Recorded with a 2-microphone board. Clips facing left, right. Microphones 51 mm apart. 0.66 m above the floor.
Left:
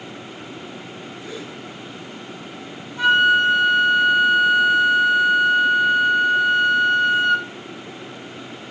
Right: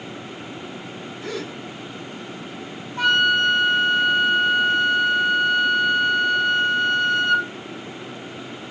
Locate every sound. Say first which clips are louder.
1.2 s a gasp: right 5 dB; 80° right, 3 m
3.0 s a flute: left 3 dB; 50° right (ahead or behind), 5 m